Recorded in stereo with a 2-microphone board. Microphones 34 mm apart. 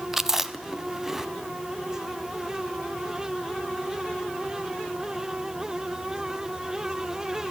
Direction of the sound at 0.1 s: 10° right (ahead or behind).